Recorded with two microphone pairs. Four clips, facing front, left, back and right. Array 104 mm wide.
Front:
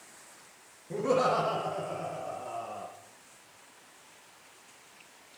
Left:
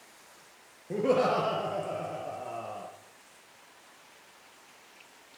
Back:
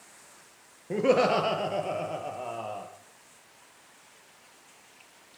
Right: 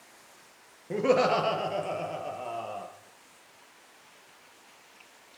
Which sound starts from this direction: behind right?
Laughter, at 0.9 s.